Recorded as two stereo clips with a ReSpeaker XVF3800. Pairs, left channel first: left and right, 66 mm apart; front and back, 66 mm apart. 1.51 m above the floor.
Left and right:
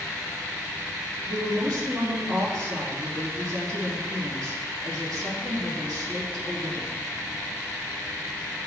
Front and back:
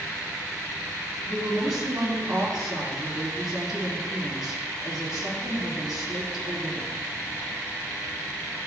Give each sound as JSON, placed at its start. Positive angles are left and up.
{"t": 1.3, "sound": "a woman speaking", "azimuth_deg": -95, "distance_m": 3.5}